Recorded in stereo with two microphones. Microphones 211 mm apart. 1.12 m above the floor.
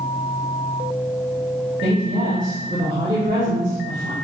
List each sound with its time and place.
1.8 s a woman speaking: 65° right (ahead or behind), 2 m